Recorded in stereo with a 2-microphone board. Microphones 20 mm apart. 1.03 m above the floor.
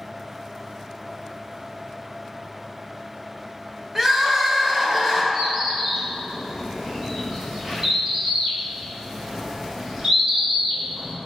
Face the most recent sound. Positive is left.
turn(degrees=-70)  # may be behind; listen again after turning